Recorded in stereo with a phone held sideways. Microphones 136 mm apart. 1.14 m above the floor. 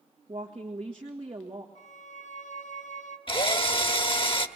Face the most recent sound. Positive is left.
turn(degrees=40)  # may be behind; listen again after turning